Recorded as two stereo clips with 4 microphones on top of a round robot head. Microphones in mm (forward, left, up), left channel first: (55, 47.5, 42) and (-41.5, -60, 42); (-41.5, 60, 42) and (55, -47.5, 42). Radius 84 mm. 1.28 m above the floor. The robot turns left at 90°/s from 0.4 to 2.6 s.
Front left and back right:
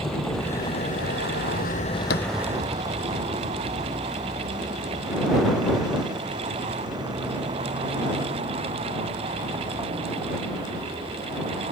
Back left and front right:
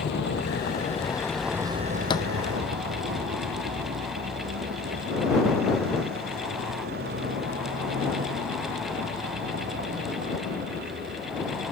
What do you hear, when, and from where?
0.0 s a vehicle: 135° left; by 11.7 s 70° right
2.1 s a thud: 75° left; by 2.3 s 55° left